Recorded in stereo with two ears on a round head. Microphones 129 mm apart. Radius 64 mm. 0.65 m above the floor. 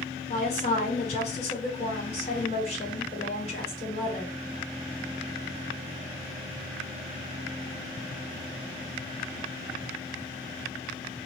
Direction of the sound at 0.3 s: 50° left (ahead or behind).